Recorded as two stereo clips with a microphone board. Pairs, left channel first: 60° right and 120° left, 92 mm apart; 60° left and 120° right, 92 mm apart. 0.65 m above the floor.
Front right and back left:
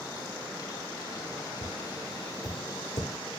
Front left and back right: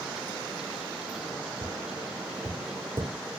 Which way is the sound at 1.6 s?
75° right.